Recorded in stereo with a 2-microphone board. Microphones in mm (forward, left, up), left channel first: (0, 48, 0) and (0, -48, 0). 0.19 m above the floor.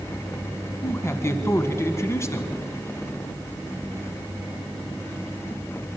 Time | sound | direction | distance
0.8 | a man speaking | 30° left (ahead or behind) | 1.5 m